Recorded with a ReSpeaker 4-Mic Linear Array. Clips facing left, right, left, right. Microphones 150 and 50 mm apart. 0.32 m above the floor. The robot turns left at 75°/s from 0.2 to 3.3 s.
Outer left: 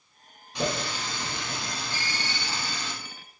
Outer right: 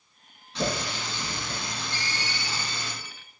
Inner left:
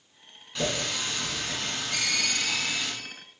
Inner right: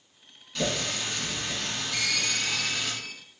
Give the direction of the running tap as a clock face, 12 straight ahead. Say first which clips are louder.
Even, even; 7 o'clock.